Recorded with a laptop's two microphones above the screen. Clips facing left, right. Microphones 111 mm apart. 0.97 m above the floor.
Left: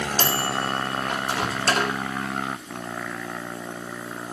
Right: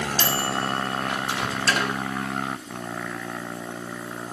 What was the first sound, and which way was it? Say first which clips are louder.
A microwave: left 1 dB; 45° left (ahead or behind).